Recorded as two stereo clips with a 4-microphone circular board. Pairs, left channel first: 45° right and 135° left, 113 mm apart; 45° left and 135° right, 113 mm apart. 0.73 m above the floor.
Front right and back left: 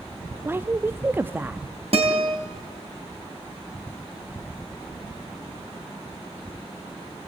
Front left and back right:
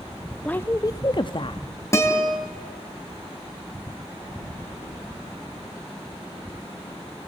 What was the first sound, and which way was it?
A woman speaking, 105° left.